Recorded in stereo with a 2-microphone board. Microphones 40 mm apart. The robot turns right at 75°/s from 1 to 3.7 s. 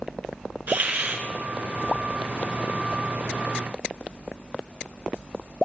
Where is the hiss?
50° right (ahead or behind), 2.5 m; by 1.2 s 55° right (ahead or behind), 2.5 m.